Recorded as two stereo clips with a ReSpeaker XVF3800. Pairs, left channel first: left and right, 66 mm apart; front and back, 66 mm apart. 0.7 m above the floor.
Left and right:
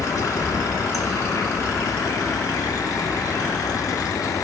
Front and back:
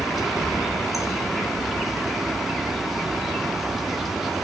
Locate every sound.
0.0 s an insect: 90° left, 0.7 m